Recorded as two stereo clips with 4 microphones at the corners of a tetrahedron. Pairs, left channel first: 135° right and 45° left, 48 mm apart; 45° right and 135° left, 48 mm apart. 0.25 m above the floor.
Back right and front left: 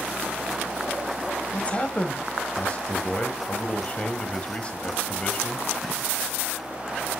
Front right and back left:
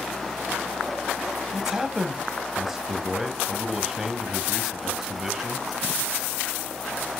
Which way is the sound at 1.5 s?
150° right.